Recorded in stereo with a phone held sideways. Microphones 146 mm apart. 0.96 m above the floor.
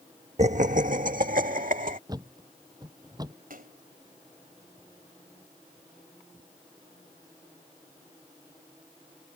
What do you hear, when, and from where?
0.4 s laughter: 50° right (ahead or behind); by 2.0 s 65° right (ahead or behind)
2.1 s a thud: 25° right (ahead or behind)
3.5 s a splash: 75° right (ahead or behind)